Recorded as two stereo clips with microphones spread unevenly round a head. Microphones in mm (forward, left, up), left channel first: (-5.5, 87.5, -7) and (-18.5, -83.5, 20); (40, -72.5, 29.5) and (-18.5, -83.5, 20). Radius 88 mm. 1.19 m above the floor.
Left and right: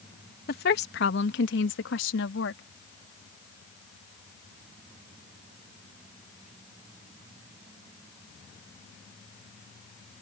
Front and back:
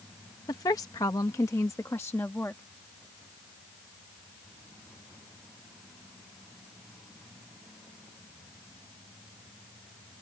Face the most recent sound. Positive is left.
turn(degrees=85)